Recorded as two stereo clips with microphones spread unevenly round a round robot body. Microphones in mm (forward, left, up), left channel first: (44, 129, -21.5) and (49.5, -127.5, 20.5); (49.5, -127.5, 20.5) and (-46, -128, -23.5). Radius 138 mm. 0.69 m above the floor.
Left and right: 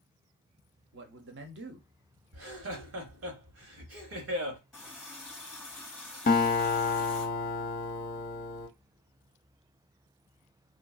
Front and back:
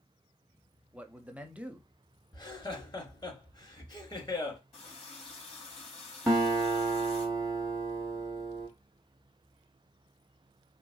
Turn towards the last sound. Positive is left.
turn(degrees=120)